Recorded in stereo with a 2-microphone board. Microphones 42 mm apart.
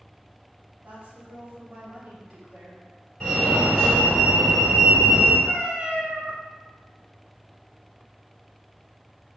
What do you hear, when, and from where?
0.8 s a woman speaking: 40° right (ahead or behind), 1.2 m
3.2 s a fire alarm: 10° left (ahead or behind), 2.0 m
5.5 s a cat meowing: 25° right (ahead or behind), 0.7 m